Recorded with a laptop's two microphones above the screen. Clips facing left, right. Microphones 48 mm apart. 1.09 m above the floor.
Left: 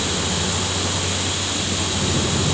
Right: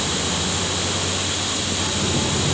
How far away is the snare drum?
No snare drum in this recording.